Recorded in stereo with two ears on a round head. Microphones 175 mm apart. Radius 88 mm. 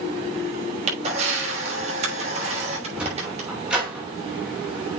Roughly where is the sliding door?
Centre.